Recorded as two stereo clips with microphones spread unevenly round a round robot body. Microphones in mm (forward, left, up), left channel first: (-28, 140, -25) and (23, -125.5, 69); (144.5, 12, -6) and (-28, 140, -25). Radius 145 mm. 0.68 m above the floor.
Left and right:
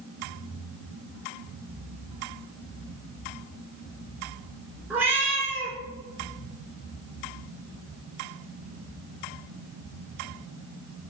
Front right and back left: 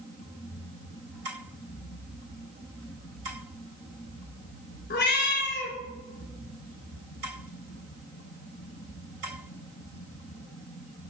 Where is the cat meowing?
Straight ahead, 1.8 m.